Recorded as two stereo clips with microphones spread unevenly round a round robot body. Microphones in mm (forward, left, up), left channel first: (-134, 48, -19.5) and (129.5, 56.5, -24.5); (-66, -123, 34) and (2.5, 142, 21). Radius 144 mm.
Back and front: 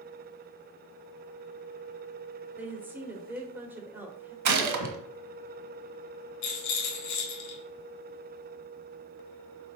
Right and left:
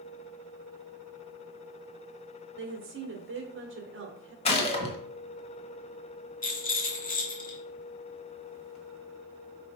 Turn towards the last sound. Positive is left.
turn(degrees=-165)